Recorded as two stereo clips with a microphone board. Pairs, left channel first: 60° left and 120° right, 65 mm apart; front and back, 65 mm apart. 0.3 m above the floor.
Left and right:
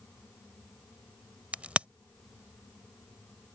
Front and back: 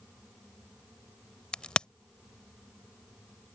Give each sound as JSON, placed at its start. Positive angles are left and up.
{"t": 1.5, "sound": "a crack", "azimuth_deg": -65}